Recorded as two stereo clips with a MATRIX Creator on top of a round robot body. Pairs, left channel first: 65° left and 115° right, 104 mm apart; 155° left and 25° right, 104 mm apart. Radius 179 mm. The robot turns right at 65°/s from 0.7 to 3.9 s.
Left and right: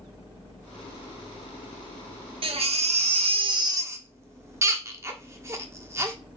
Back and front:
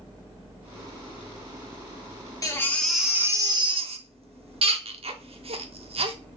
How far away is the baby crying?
About 1.0 m.